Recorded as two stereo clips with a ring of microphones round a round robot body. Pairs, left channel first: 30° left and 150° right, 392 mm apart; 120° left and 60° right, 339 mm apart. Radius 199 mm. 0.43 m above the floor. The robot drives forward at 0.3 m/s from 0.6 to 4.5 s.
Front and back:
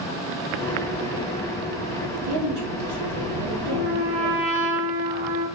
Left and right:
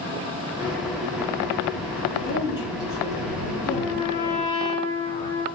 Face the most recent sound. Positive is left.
turn(degrees=-165)